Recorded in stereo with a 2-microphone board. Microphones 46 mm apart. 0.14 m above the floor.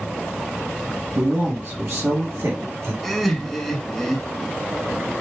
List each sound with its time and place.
1.1 s a man speaking: 50° right (ahead or behind), 2 m; by 2.9 s 70° right (ahead or behind), 3.5 m
3.0 s laughter: centre (ahead or behind), 1.1 m